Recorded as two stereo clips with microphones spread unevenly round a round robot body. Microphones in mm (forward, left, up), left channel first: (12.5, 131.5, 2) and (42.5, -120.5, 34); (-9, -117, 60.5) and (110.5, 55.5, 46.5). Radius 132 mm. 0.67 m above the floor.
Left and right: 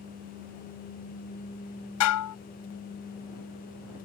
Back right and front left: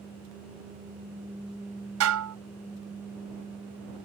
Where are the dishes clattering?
75° left.